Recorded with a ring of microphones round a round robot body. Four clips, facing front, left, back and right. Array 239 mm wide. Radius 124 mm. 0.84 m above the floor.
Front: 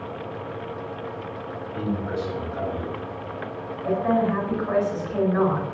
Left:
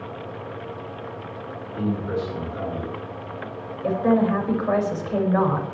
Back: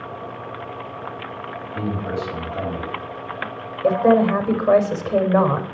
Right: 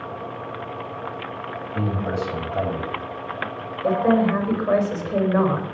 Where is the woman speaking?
Straight behind, 4.5 m.